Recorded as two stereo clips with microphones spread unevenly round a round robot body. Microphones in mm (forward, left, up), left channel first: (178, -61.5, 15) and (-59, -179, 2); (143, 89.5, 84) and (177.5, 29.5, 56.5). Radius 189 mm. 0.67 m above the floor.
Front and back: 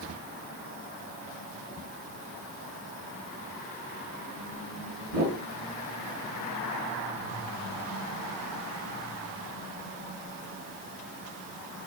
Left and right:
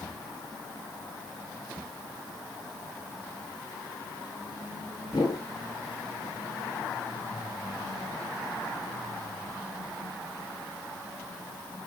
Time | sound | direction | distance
5.1 | a whoosh | 160° left | 2 m